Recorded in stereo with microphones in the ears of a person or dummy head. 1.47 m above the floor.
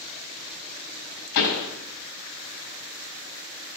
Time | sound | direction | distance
1.4 | a pop | 75° left (ahead or behind) | 5.5 m